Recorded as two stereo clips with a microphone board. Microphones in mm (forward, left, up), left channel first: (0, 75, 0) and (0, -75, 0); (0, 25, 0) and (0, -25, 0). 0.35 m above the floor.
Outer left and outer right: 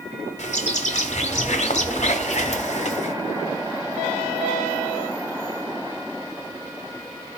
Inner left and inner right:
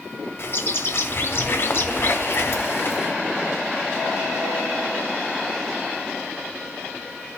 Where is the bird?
50° left (ahead or behind), 1.5 m.